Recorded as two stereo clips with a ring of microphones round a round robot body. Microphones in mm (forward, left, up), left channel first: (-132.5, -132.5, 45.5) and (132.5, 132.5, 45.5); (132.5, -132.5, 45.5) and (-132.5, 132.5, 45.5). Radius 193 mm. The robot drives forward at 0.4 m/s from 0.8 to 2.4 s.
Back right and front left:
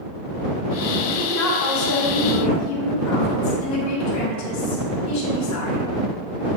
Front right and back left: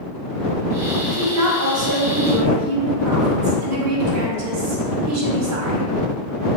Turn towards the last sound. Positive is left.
turn(degrees=180)